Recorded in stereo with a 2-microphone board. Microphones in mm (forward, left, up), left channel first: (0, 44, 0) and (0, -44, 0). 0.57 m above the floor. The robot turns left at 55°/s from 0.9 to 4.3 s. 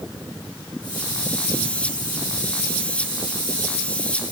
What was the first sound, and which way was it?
Only background noise.